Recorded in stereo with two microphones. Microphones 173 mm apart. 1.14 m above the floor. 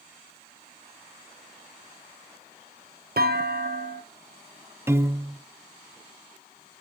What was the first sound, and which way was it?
A clunk, 70° right (ahead or behind).